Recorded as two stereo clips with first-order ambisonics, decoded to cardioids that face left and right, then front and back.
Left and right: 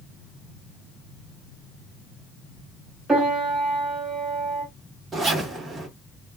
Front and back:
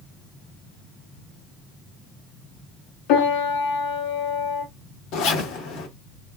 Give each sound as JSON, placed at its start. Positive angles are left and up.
{"t": 3.1, "sound": "a piano", "azimuth_deg": -10, "distance_m": 1.6}
{"t": 5.1, "sound": "a zipper", "azimuth_deg": -20, "distance_m": 1.4}